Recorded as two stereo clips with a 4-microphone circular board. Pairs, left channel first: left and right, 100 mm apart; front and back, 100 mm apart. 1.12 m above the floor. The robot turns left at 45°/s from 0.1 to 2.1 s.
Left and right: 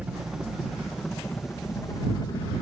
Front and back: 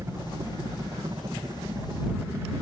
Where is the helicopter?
155° right; by 2.6 s 120° left.